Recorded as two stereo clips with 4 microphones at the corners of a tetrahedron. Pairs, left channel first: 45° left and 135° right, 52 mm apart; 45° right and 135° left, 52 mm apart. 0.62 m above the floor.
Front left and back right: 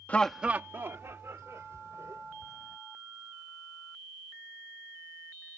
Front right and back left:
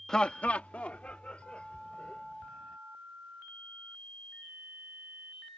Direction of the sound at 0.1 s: 20° left.